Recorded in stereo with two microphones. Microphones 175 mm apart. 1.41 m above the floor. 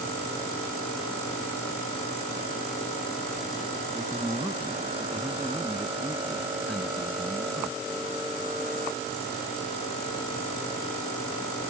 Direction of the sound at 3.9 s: Centre (ahead or behind).